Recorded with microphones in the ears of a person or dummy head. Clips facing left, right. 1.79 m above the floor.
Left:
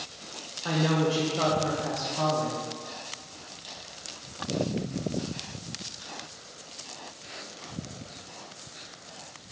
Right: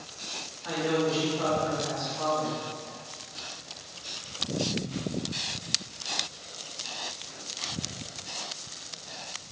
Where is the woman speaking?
65° left (ahead or behind), 1.0 m.